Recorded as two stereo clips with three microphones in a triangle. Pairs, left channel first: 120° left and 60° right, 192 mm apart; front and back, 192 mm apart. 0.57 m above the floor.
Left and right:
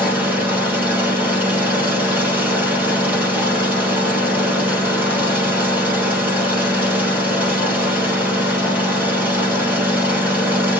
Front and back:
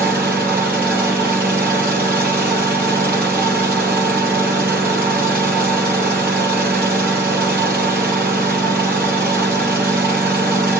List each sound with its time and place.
0.0 s an engine running: 140° right, 6 m